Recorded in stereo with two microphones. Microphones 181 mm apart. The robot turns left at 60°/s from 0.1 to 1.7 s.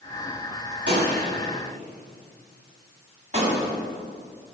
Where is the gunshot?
90° right, 8 m; by 3.8 s 40° right (ahead or behind), 8 m.